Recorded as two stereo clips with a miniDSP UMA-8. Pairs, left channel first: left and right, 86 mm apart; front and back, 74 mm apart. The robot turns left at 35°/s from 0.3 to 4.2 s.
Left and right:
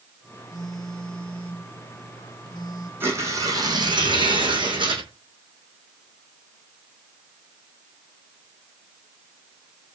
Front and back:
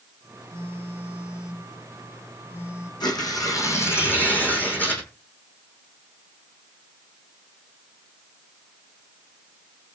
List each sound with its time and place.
0.5 s a phone buzzing: 130° left, 6 m; by 2.9 s 45° left, 6 m
3.0 s tearing paper: 25° right, 4 m; by 5.0 s 65° right, 4 m